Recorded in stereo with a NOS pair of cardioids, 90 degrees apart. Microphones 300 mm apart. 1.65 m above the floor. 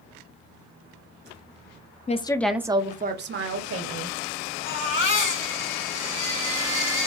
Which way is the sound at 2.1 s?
25° left.